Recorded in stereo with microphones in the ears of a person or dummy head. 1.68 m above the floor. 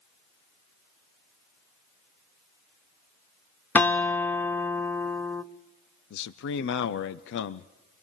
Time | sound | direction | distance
3.8 | a guitar | 15° left (ahead or behind) | 0.6 m
6.1 | a man speaking | 65° left (ahead or behind) | 0.6 m